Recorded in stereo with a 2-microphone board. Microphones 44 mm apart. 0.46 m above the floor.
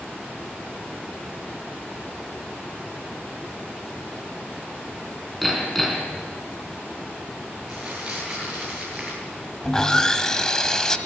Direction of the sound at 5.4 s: 5° left (ahead or behind).